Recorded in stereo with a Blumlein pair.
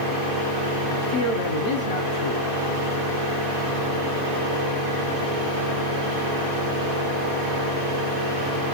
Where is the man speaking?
55° left, 0.9 m.